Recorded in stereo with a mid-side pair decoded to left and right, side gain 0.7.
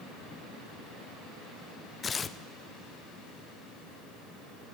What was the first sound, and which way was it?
Tearing paper, 25° left.